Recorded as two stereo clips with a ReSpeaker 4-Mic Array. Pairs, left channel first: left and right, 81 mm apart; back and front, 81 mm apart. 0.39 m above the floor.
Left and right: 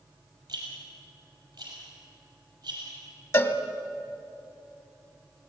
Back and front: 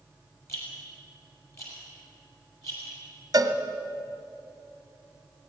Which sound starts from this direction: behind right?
A rattle, at 0.5 s.